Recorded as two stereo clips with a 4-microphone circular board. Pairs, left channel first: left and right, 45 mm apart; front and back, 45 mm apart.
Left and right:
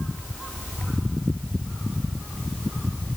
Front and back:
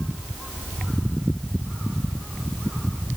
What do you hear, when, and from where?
Only background noise.